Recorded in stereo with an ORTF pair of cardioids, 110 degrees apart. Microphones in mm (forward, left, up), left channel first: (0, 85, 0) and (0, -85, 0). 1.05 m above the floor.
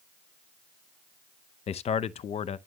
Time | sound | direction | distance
1.7 | a man speaking | 40° left | 0.7 m